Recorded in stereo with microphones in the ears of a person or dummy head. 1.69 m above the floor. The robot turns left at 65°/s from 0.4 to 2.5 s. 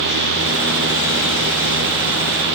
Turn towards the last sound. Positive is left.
No sound to turn to.